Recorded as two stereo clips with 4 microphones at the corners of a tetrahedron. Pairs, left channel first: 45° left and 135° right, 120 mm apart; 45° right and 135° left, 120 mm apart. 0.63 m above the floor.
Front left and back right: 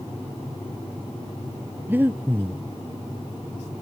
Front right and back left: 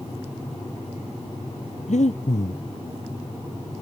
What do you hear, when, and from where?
1.9 s breathing: 60° right